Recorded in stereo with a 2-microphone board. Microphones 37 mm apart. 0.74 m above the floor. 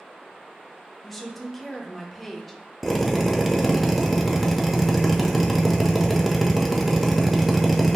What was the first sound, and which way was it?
A woman speaking, centre (ahead or behind).